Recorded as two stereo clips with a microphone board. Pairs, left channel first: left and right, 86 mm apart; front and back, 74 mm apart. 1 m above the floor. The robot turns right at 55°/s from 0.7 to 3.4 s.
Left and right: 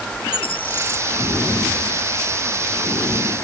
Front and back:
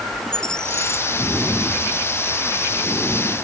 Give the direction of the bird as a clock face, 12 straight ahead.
9 o'clock.